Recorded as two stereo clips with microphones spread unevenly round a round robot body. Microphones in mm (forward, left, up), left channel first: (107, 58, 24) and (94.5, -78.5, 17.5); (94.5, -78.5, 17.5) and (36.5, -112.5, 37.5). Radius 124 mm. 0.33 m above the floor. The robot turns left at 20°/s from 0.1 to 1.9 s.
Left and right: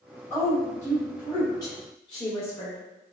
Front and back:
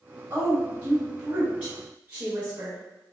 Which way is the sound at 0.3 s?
155° left.